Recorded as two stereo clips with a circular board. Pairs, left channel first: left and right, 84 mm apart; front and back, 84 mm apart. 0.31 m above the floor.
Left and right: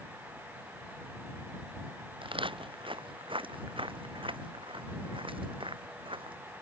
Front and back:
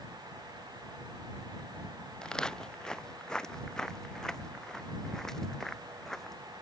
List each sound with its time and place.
2.2 s footsteps: 80° right; by 6.4 s 85° right